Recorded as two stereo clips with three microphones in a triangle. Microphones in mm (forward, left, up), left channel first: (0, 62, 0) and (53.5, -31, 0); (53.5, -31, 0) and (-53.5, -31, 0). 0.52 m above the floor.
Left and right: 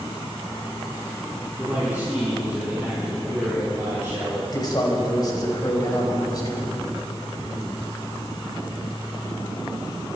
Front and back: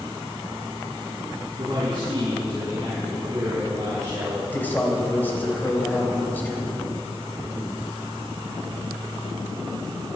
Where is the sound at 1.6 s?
130° right, 6.5 m; by 4.4 s 120° right, 5 m.